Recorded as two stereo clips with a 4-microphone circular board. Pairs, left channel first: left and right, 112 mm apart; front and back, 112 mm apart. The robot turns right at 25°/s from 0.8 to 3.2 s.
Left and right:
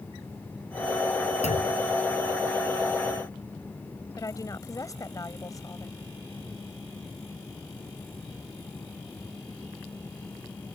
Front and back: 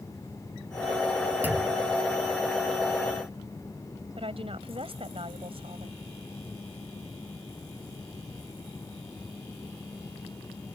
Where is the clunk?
105° left; by 1.8 s 115° left.